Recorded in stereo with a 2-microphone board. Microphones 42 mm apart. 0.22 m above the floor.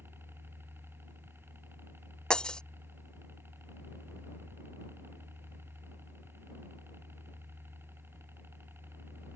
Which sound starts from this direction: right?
A helicopter, at 0.0 s.